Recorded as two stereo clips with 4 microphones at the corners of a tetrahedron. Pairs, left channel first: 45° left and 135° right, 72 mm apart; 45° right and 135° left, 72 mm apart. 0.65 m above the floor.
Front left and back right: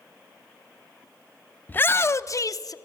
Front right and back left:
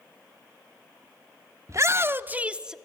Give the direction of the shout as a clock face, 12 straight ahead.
9 o'clock.